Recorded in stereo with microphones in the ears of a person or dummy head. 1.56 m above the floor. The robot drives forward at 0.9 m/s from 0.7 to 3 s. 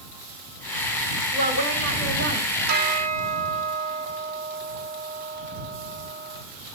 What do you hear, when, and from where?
1.3 s a woman speaking: 50° right (ahead or behind), 4.5 m; by 2.6 s 60° right (ahead or behind), 3.5 m
2.7 s a bell: 50° right (ahead or behind), 1.2 m; by 6.4 s 40° right (ahead or behind), 1.4 m